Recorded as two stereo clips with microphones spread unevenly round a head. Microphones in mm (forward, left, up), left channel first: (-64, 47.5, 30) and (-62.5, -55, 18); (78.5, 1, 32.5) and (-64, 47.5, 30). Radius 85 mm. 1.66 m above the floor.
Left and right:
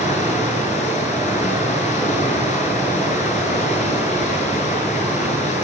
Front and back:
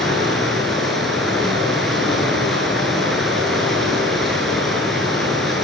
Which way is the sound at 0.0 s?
70° left.